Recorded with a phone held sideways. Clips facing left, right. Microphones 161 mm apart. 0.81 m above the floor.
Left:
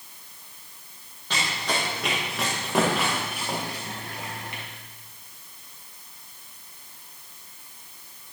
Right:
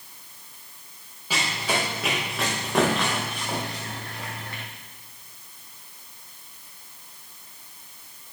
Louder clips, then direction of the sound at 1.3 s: Right 2 dB; 5° right (ahead or behind).